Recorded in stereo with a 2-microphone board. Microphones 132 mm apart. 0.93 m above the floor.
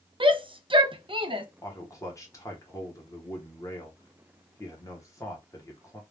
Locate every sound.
0.2 s a shout: 40° right (ahead or behind), 0.5 m
1.6 s a man speaking: 25° left (ahead or behind), 0.9 m